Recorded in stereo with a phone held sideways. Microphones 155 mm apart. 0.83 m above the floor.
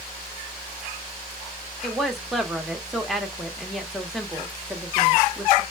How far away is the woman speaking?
About 1.1 m.